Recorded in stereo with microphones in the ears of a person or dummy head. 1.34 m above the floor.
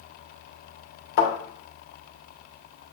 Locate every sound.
1.2 s a thud: 70° left (ahead or behind), 2.5 m